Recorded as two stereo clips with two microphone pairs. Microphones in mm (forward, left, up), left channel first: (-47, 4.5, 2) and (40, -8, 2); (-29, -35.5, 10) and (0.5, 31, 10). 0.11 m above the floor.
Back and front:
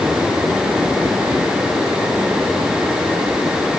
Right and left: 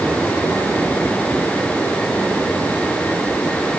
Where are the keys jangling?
No keys jangling in this recording.